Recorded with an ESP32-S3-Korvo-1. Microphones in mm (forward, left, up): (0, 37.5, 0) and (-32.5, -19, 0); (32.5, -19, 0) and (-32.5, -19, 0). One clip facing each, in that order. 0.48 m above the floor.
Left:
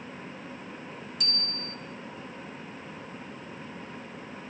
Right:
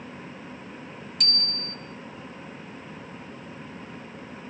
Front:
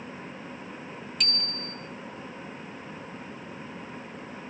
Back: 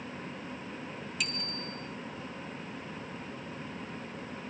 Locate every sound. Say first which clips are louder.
1.2 s a bicycle bell: right 4 dB, front 3 dB; 95° right, 3 m